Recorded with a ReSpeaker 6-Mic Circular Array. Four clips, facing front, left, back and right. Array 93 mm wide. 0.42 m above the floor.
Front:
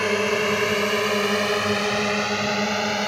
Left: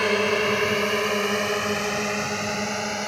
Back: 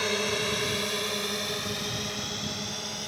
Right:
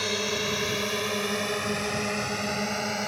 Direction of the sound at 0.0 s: 50° left.